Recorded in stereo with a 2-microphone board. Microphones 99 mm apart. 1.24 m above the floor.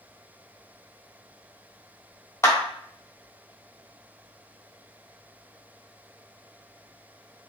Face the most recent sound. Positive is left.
turn(degrees=25)  # may be behind; listen again after turning